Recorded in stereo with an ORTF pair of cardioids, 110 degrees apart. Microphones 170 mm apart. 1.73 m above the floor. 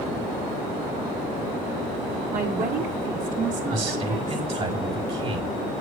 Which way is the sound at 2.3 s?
60° right.